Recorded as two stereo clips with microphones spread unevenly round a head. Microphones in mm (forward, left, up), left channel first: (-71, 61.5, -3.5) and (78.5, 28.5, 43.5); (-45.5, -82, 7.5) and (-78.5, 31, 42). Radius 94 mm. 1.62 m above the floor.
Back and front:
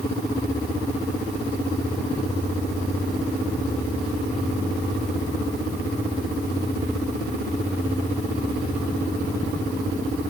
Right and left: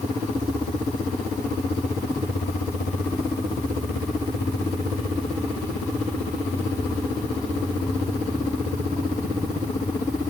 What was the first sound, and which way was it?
Only background noise.